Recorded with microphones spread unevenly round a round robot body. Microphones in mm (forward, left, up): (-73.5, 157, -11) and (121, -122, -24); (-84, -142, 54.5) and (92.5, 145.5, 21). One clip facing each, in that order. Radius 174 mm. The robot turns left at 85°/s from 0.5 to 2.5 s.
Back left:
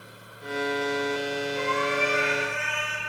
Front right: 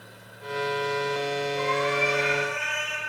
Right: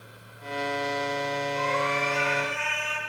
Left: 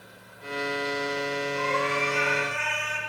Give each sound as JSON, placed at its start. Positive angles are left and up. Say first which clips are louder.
{"t": 1.6, "sound": "a cat meowing", "louder": "front right 1 dB, left 1 dB", "azimuth_deg": 180, "distance_m": 2.0}